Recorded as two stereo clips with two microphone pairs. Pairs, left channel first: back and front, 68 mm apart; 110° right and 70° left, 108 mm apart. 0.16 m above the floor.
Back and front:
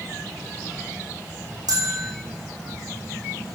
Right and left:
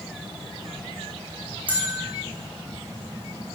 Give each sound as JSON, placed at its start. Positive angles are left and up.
{"t": 1.7, "sound": "a bell", "azimuth_deg": -5, "distance_m": 2.5}